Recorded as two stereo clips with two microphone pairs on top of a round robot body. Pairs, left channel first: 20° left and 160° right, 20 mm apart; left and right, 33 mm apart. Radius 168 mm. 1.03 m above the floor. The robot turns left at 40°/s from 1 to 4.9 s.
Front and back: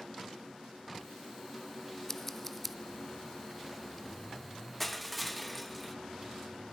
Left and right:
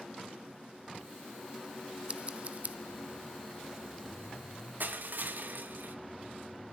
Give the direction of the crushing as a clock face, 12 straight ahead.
2 o'clock.